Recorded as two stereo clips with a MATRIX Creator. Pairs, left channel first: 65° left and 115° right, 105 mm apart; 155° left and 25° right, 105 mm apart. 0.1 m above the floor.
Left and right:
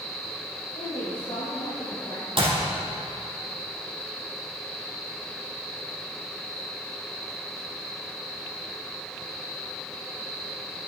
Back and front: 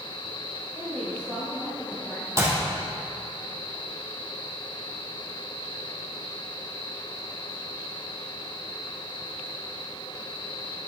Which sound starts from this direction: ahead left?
A woman speaking, at 0.8 s.